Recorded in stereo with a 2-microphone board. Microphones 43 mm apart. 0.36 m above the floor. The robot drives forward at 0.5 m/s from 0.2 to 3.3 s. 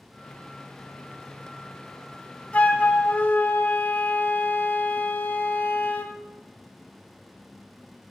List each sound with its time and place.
2.5 s a flute: 35° left (ahead or behind), 1.2 m; by 6.1 s 45° left (ahead or behind), 1.0 m